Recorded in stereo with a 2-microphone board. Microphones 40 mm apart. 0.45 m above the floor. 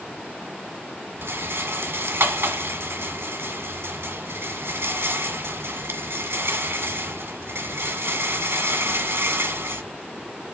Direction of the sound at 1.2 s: 85° right.